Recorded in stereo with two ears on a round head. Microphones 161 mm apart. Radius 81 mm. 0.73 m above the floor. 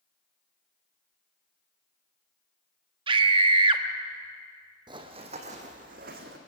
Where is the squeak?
I don't hear a squeak.